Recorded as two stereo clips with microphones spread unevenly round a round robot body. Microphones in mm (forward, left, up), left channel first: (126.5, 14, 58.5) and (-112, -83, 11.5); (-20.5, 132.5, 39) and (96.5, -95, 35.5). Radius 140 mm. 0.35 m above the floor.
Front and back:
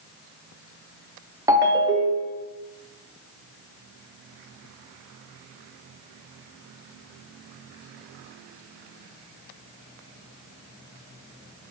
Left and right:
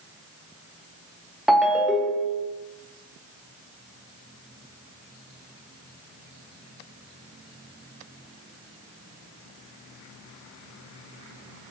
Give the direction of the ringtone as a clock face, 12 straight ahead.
5 o'clock.